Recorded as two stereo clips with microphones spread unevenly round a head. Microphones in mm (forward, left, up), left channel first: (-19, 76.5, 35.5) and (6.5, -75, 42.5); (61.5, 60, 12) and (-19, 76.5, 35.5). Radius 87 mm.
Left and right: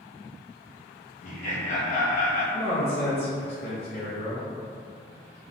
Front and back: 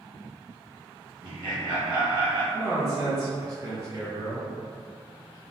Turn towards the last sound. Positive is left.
turn(degrees=130)